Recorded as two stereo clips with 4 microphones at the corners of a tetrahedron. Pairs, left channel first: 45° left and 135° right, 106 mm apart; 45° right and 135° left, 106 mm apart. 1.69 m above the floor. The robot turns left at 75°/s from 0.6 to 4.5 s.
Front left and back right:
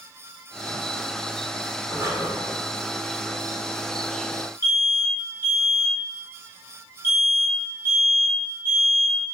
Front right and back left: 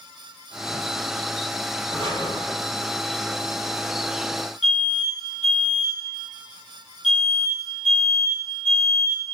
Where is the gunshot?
No gunshot in this recording.